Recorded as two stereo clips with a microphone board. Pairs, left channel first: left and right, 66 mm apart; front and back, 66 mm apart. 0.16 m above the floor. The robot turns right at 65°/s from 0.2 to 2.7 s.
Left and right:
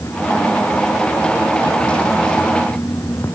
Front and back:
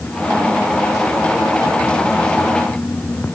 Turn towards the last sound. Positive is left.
No sound to turn to.